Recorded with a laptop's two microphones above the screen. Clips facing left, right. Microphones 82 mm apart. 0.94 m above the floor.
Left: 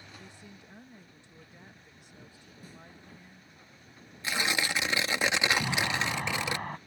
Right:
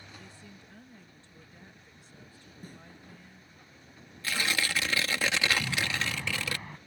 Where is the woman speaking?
20° left (ahead or behind).